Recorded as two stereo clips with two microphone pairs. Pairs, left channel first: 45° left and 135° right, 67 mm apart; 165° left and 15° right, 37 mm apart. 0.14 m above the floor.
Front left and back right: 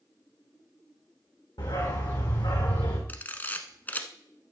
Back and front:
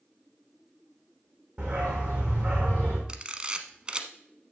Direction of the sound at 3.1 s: 15° left.